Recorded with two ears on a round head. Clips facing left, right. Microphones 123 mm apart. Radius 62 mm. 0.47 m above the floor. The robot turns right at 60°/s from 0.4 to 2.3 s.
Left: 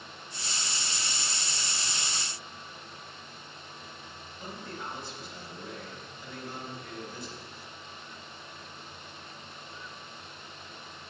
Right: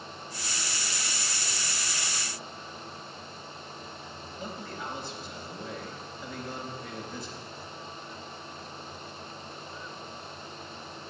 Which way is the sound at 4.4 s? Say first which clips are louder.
Right 2 dB; 60° right (ahead or behind).